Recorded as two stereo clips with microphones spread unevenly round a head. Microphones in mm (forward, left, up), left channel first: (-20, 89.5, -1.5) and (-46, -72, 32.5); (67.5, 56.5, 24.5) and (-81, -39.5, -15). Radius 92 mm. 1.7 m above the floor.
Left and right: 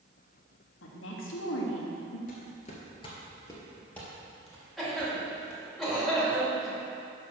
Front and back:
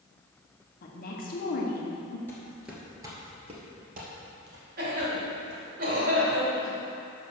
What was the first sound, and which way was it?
A woman speaking, 75° left.